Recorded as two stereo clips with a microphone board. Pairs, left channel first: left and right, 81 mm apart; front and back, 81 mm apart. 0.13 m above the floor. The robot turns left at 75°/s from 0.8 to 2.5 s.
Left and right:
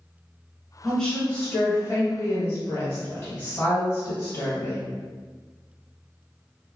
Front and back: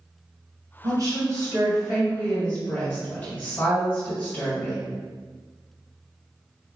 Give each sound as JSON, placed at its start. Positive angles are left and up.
{"t": 0.8, "sound": "a woman speaking", "azimuth_deg": 180, "distance_m": 1.6}